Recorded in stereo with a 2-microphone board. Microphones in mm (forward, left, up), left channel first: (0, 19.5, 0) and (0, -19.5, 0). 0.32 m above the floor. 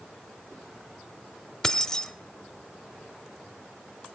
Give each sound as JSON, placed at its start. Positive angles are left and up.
{"t": 1.6, "sound": "keys jangling", "side_deg": 15, "distance_m": 0.9}